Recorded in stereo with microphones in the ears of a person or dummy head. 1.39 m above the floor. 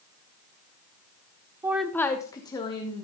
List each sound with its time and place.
1.6 s a woman speaking: 15° right (ahead or behind), 0.6 m; by 3.0 s 25° left (ahead or behind), 2 m